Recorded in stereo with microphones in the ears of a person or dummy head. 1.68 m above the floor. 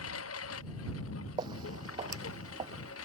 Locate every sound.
0.0 s a lawn mower: 85° left
1.4 s footsteps: 20° right (ahead or behind)